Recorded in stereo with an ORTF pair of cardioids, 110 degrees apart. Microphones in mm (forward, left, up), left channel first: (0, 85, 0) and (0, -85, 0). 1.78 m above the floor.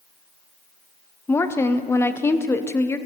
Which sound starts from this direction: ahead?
A woman speaking, at 1.3 s.